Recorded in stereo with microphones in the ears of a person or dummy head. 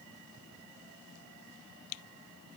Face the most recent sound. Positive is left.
No sound to turn to.